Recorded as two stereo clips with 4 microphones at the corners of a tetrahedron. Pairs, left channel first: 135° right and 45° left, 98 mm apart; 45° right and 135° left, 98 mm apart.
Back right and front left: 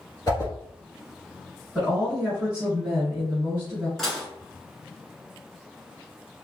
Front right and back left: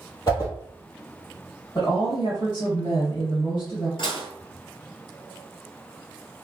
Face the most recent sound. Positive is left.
turn(degrees=-50)